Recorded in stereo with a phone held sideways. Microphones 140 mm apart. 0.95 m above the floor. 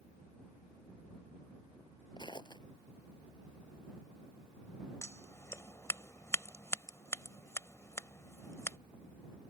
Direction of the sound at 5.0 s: 20° left (ahead or behind).